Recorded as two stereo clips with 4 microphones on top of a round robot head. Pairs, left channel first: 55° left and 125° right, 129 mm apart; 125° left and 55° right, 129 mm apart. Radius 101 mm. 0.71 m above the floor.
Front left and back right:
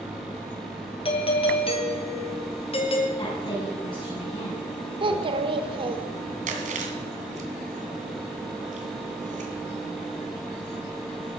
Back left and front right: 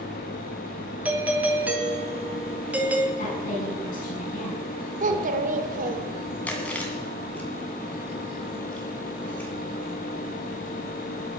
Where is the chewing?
155° right, 2.5 m.